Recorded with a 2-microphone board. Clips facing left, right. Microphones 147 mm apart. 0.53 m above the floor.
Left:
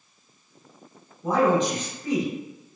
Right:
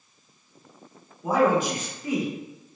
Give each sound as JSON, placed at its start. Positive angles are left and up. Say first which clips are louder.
{"t": 1.2, "sound": "a man speaking", "louder": "even", "side_deg": -10, "distance_m": 1.2}